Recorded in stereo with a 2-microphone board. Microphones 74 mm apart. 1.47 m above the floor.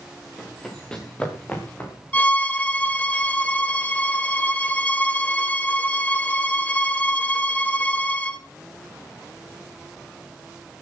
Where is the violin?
20° left (ahead or behind), 2.5 m.